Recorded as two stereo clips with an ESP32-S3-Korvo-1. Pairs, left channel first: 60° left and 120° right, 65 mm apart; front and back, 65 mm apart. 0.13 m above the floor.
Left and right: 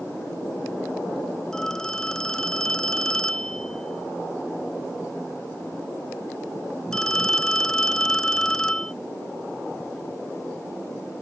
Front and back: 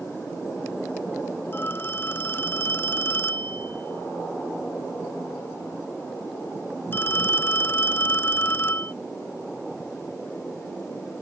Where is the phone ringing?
10° right.